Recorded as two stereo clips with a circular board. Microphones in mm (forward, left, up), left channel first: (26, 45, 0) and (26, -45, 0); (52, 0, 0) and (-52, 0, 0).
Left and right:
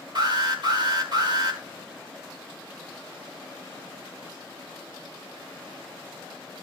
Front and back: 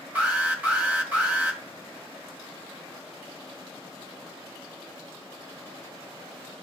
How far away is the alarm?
About 2.5 m.